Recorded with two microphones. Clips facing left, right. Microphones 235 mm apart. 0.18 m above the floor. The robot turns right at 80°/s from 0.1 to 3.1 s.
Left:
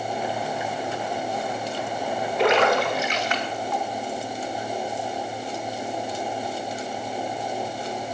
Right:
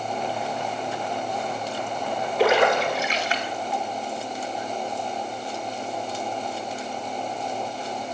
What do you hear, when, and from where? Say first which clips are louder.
2.4 s a splash: right 1 dB; centre (ahead or behind), 0.9 m; by 3.9 s 35° right (ahead or behind), 0.9 m